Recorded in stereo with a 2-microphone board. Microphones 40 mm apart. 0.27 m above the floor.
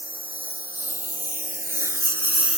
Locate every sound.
0.0 s a lawn mower: 50° right (ahead or behind); by 2.6 s 15° right (ahead or behind)